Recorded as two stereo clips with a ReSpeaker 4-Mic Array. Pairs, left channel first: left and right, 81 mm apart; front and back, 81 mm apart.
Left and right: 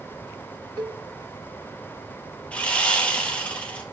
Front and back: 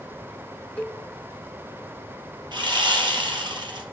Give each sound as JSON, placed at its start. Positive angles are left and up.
{"t": 0.8, "sound": "a cowbell", "azimuth_deg": -70, "distance_m": 0.8}
{"t": 2.5, "sound": "sawing", "azimuth_deg": 165, "distance_m": 1.5}